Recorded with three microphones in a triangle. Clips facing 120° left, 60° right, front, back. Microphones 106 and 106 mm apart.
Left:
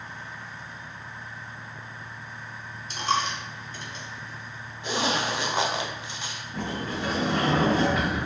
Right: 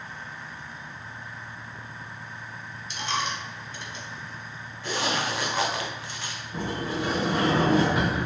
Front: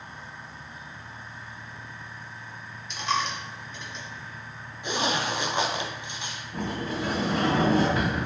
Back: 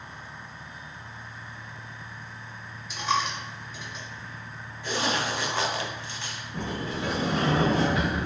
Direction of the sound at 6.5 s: 5° left.